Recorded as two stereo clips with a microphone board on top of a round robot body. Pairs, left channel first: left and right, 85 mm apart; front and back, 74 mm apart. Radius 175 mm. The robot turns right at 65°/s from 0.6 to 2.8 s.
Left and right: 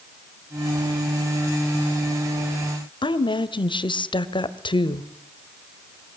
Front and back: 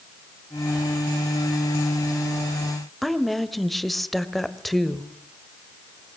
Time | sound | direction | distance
3.0 | a woman speaking | 90° left | 2.0 m